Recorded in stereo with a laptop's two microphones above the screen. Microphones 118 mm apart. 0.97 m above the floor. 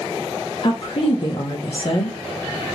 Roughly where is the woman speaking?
Left.